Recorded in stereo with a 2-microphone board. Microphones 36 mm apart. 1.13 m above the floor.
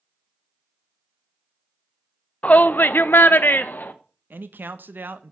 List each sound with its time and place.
2.4 s a shout: 40° left (ahead or behind), 0.5 m; by 3.9 s 55° left (ahead or behind), 1.0 m
4.3 s a man speaking: 65° right (ahead or behind), 0.8 m